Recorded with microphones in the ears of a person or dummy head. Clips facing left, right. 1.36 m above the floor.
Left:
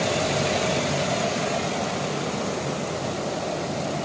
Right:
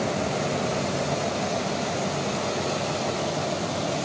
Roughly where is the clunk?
I don't hear a clunk.